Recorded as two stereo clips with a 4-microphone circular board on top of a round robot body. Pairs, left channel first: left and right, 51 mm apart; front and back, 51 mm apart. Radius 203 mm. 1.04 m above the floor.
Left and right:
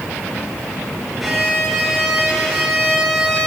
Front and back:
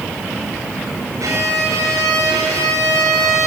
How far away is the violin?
About 4 m.